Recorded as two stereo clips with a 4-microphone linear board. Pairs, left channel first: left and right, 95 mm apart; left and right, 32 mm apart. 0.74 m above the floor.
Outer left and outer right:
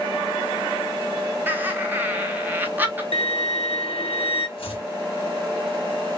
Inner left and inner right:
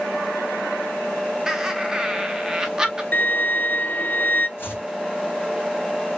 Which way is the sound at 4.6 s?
70° left (ahead or behind).